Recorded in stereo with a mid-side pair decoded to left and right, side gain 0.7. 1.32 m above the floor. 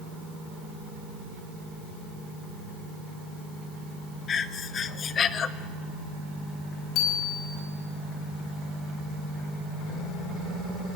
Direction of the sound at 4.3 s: 35° left.